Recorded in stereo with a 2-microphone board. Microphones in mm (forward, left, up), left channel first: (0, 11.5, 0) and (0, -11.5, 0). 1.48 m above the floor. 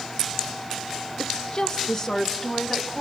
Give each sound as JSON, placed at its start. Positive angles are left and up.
{"t": 1.2, "sound": "a woman speaking", "side_deg": 40, "distance_m": 1.2}